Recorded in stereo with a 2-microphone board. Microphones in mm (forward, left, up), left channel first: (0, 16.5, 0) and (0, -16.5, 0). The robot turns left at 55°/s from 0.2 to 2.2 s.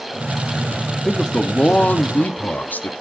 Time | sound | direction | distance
1.1 | a man speaking | 165° left | 1.1 m